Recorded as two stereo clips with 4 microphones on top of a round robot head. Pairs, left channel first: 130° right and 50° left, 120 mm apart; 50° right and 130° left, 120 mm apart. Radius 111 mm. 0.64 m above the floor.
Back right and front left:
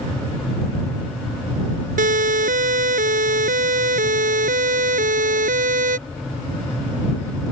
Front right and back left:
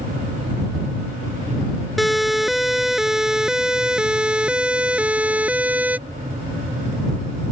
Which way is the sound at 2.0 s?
40° left.